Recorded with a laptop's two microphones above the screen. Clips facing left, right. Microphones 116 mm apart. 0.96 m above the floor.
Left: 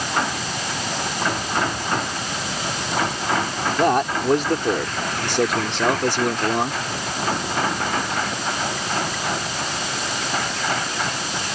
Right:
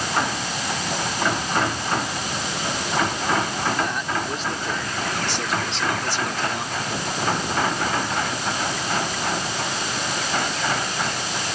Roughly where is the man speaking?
Left.